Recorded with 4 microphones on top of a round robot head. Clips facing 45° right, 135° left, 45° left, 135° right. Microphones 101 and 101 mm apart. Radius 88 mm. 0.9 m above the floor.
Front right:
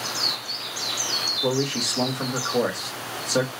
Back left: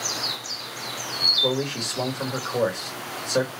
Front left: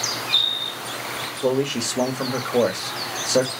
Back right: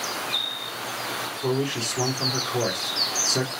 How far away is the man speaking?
About 1.5 m.